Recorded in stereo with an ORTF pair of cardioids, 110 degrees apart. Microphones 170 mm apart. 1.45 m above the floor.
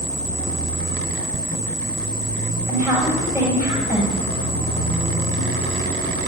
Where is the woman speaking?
15° right, 6.5 m.